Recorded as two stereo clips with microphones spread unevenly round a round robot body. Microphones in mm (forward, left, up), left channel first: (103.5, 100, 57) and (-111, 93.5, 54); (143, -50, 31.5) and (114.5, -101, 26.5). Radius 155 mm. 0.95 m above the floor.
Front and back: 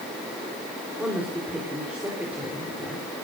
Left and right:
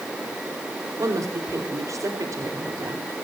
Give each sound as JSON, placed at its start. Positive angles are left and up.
{"t": 1.0, "sound": "a woman speaking", "azimuth_deg": -95, "distance_m": 4.0}